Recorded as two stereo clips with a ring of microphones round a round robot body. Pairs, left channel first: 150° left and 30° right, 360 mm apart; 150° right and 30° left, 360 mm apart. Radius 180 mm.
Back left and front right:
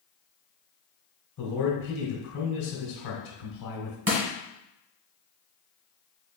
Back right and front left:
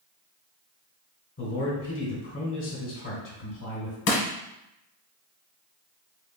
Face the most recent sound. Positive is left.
turn(degrees=-100)